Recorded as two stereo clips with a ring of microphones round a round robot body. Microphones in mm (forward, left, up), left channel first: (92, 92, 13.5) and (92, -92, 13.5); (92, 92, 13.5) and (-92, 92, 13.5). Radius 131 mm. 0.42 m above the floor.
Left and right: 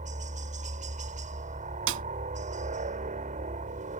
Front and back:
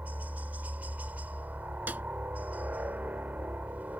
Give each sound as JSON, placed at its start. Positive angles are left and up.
{"t": 0.0, "sound": "a helicopter", "azimuth_deg": -100}
{"t": 1.9, "sound": "a snare drum", "azimuth_deg": -95}